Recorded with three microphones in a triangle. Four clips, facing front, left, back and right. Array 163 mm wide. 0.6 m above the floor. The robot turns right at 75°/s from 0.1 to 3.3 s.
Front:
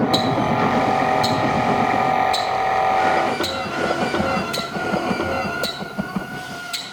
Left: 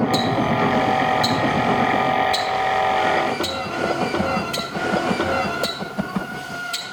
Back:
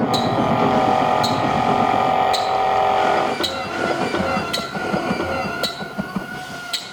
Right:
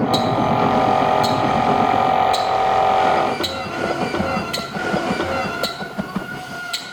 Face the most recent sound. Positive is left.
turn(degrees=-150)